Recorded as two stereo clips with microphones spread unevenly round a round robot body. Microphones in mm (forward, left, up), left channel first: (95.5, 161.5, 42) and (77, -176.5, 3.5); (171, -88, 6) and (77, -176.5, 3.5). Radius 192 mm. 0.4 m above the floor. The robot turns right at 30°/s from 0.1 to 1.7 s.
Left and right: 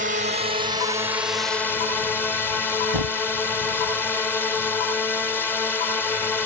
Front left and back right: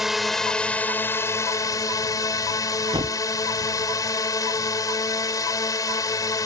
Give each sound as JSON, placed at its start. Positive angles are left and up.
{"t": 0.0, "sound": "a drone", "azimuth_deg": -50}
{"t": 2.9, "sound": "a thud", "azimuth_deg": -90}